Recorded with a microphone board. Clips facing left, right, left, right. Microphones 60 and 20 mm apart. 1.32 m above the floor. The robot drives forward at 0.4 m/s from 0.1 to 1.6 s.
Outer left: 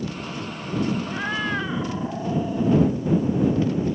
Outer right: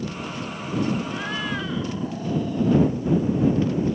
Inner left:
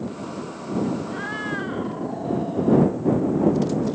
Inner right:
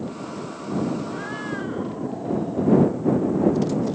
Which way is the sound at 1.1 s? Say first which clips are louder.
Outer left 2 dB, inner left 1 dB; 20° left (ahead or behind).